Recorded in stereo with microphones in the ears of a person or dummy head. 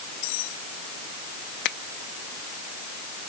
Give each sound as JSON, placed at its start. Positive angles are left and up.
{"t": 0.2, "sound": "cutlery clinking", "side_deg": 75}
{"t": 1.6, "sound": "a finger snap", "side_deg": 60}